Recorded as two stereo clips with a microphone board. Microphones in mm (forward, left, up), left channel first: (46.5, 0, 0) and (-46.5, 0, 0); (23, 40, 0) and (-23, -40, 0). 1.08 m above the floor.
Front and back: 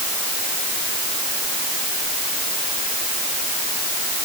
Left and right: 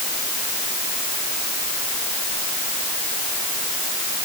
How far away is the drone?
I don't hear a drone.